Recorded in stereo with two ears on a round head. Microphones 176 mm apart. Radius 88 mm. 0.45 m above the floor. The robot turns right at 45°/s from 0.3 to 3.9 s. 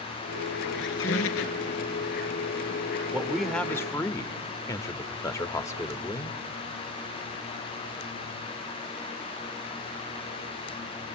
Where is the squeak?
60° left, 1.0 m; by 1.7 s 105° left, 1.0 m.